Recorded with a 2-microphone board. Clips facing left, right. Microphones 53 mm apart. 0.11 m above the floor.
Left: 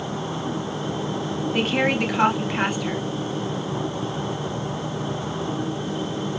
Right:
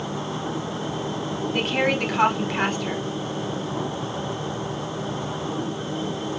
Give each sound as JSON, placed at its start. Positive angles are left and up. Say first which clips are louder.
{"t": 1.5, "sound": "a woman speaking", "louder": "left 1 dB", "side_deg": 5, "distance_m": 1.9}